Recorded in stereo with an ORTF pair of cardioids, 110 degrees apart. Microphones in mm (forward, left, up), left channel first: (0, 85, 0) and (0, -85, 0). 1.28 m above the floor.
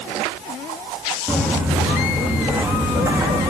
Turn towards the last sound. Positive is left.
turn(degrees=-20)